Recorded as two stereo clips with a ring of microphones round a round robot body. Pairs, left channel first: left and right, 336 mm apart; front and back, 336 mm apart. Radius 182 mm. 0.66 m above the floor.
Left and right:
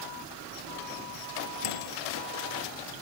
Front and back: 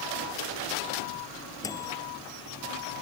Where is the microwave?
80° left.